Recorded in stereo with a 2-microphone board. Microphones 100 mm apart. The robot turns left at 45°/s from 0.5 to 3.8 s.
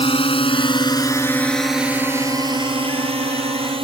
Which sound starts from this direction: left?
A drone, at 0.0 s.